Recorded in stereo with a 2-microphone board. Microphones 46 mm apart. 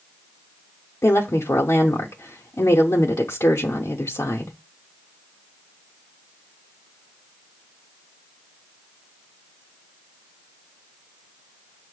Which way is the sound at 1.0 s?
85° left.